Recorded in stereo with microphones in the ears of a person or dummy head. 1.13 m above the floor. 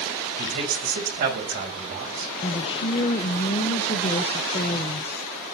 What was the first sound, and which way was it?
A man speaking, 50° right (ahead or behind).